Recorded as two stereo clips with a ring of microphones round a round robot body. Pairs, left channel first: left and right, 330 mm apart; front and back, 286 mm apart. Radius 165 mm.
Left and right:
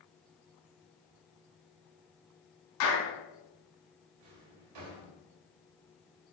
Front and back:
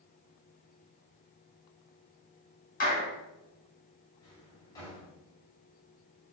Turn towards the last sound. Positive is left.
turn(degrees=-80)